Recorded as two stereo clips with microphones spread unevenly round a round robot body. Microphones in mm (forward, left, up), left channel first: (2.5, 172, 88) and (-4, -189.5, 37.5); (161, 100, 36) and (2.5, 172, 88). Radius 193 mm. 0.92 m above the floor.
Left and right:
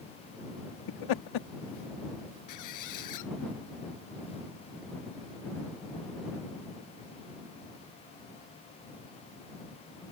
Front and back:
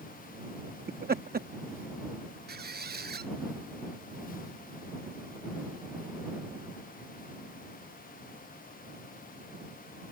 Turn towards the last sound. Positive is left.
turn(degrees=130)